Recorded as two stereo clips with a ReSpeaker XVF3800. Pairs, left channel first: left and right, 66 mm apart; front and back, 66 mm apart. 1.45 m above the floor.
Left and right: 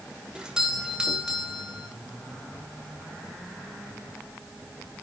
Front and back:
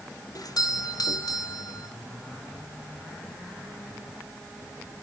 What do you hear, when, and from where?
0.3 s a doorbell: 10° right, 5 m